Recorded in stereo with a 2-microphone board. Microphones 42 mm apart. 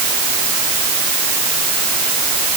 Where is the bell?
No bell in this recording.